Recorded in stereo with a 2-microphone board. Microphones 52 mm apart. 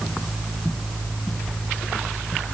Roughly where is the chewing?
No chewing in this recording.